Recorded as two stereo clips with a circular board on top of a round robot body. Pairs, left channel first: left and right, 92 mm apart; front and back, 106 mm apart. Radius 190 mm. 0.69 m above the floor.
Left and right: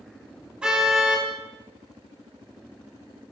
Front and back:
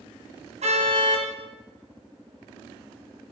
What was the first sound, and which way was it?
A car horn, 170° right.